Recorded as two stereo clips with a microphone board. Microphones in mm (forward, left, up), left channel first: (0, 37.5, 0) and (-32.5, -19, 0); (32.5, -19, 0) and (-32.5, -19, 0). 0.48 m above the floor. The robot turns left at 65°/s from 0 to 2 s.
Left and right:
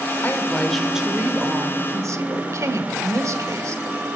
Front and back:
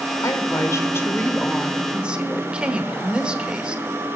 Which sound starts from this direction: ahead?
A woman speaking, at 0.2 s.